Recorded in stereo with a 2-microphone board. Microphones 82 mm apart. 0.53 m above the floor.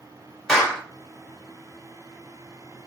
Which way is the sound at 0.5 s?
10° left (ahead or behind).